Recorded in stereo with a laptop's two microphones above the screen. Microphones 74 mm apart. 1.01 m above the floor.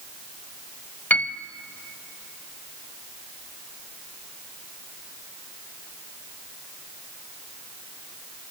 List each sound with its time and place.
1.1 s a piano: 25° left (ahead or behind), 0.8 m